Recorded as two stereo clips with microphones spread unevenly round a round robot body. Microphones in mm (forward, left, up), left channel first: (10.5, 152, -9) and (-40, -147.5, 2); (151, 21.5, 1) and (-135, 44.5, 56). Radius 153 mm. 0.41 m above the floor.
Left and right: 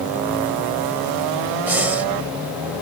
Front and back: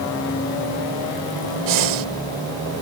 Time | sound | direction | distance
1.7 | breathing | 175° left | ?